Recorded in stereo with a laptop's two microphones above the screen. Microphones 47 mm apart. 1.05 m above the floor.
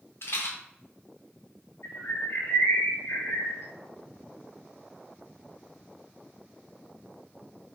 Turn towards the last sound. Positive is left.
turn(degrees=70)  # may be behind; listen again after turning